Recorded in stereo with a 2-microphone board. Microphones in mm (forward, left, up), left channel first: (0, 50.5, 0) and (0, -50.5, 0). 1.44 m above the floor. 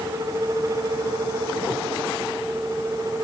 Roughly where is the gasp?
I don't hear a gasp.